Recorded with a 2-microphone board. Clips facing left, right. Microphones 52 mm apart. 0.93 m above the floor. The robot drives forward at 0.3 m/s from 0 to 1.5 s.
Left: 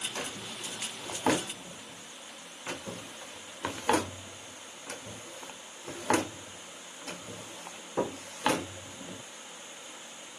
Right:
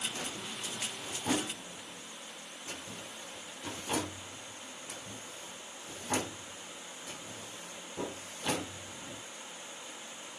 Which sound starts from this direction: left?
A drawer, at 0.1 s.